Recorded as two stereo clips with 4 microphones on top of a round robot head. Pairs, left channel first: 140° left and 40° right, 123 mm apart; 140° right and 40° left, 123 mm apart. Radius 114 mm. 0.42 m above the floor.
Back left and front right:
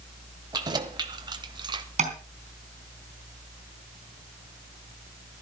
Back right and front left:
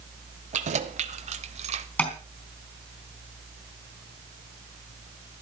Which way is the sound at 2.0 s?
65° right.